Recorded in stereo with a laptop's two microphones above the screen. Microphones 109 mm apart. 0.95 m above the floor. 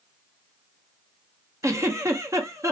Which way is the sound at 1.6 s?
25° right (ahead or behind).